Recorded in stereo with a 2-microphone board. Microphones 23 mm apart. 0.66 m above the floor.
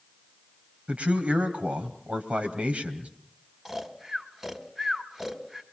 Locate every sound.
0.9 s a man speaking: 65° right (ahead or behind), 3 m
3.6 s snoring: 20° right (ahead or behind), 1.7 m